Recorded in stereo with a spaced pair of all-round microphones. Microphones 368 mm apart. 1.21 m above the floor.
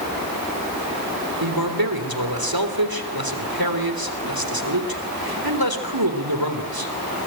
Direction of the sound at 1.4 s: 75° right (ahead or behind).